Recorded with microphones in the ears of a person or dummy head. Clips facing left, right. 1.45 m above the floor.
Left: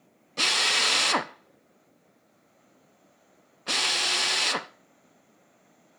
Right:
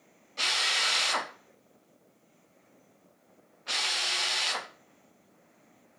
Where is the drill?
70° left (ahead or behind), 1.0 m.